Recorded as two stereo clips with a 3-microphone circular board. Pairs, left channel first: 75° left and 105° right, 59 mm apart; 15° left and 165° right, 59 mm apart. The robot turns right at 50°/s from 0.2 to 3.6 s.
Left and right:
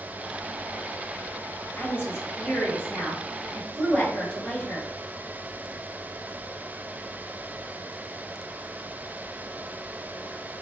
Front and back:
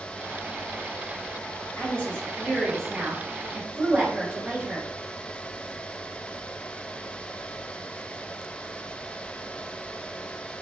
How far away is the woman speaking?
About 1.7 m.